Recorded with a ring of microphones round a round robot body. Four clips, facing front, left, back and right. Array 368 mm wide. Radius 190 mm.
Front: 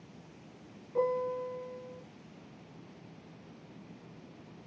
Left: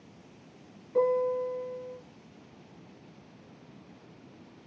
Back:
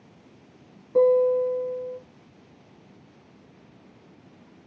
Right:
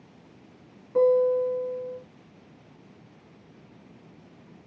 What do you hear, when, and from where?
0.9 s a guitar: 160° right, 4.5 m